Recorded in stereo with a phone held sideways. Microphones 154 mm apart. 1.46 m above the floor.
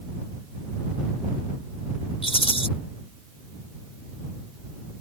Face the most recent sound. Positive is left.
turn(degrees=40)  # may be behind; listen again after turning